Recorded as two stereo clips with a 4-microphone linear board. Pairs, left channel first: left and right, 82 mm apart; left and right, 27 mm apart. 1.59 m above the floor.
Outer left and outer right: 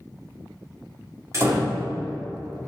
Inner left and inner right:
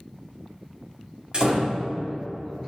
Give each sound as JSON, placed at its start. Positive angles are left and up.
{"t": 1.3, "sound": "a door slam", "side_deg": -40, "distance_m": 2.0}